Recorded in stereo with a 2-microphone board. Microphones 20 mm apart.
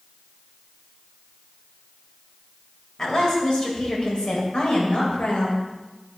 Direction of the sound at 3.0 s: 30° left (ahead or behind).